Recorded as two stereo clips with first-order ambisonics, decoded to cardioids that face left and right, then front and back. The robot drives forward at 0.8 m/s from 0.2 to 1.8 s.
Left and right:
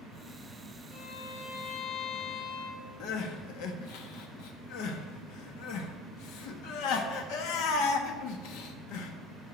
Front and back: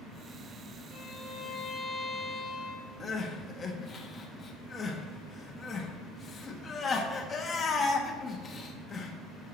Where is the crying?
70° left, 1.3 m.